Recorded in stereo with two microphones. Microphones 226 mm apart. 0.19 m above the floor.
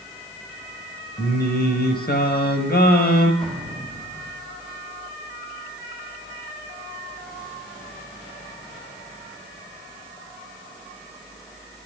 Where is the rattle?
I don't hear a rattle.